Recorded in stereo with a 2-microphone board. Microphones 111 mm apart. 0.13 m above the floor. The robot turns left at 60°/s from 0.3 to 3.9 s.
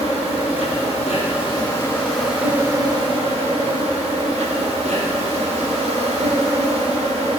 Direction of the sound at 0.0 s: 115° left.